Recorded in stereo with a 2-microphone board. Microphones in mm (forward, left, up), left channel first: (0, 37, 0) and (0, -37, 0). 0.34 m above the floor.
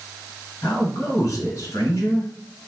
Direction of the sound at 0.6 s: 45° left (ahead or behind).